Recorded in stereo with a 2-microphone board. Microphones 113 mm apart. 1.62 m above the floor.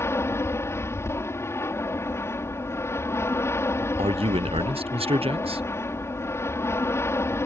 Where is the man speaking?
55° right (ahead or behind).